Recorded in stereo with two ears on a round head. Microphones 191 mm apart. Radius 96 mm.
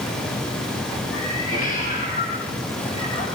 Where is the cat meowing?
45° left (ahead or behind), 8 m; by 3.2 s 30° left (ahead or behind), 10 m.